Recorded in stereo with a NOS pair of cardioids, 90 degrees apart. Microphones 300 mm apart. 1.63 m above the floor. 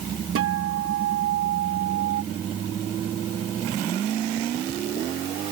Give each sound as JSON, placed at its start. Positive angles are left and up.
{"t": 0.3, "sound": "a guitar", "azimuth_deg": -50}